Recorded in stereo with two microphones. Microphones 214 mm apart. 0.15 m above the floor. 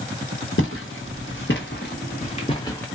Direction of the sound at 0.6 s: 80° left.